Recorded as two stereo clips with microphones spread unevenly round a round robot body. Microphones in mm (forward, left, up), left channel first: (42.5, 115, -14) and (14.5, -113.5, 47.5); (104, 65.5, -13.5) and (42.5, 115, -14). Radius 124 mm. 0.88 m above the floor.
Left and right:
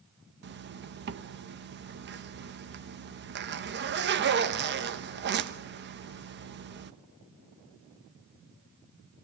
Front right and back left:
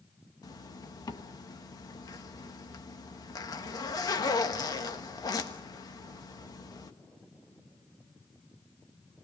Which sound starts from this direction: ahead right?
A zipper, at 0.4 s.